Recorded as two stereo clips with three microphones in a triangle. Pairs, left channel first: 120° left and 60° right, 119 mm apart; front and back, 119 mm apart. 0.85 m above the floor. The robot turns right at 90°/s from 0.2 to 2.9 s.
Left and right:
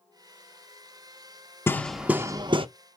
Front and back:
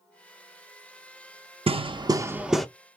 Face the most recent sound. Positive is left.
turn(degrees=-65)